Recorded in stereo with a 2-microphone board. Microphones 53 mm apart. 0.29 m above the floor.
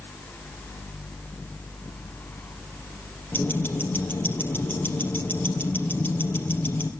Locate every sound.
3.3 s ticking: 40° left (ahead or behind), 3 m